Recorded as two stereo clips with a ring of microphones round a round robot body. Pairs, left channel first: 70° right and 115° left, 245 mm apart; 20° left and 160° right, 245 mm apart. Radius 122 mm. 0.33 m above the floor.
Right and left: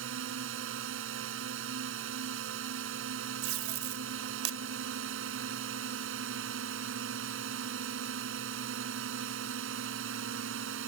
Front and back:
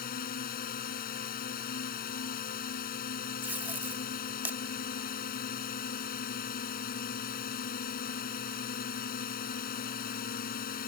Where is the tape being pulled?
120° left.